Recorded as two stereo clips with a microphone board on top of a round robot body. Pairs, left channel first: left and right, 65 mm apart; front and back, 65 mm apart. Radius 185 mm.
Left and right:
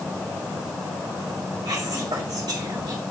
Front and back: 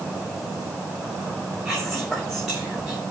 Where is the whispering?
95° right, 2 m.